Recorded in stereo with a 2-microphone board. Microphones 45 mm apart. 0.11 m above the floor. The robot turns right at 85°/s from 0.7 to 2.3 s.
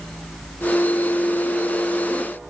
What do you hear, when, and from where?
Only background noise.